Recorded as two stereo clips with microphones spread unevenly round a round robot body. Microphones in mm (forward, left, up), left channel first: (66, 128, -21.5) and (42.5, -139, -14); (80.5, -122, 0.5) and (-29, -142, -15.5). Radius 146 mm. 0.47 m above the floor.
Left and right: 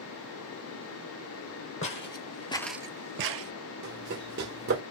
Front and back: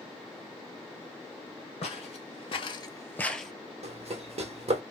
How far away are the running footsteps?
About 1.1 m.